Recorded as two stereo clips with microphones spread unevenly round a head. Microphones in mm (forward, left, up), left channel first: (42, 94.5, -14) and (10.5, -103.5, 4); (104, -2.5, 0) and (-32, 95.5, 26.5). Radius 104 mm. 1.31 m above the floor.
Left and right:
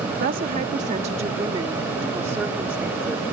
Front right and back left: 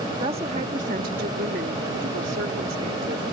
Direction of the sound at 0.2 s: 150° right.